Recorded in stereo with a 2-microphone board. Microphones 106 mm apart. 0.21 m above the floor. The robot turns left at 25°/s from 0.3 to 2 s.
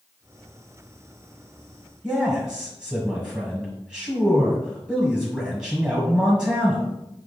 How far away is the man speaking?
About 1.1 m.